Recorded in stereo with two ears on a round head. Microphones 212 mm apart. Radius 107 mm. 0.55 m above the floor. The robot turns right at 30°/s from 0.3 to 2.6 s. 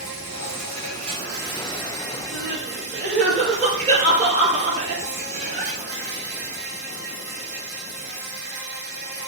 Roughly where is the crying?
Right.